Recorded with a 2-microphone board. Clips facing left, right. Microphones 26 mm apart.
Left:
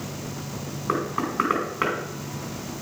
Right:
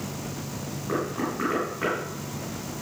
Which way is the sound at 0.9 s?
40° left (ahead or behind).